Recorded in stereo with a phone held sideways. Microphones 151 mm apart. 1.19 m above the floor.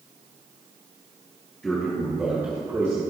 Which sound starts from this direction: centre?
A man speaking, at 1.6 s.